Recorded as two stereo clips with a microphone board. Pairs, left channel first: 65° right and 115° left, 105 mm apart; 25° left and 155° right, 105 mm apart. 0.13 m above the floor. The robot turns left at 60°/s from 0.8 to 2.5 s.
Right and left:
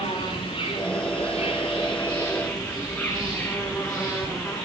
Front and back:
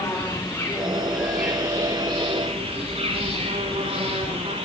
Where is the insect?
45° right, 10 m; by 4.7 s 145° right, 10 m.